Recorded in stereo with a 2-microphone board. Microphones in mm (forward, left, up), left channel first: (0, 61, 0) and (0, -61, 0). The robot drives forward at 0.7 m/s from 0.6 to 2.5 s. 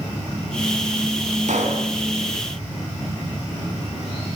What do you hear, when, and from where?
1.5 s a pop: 80° right, 4 m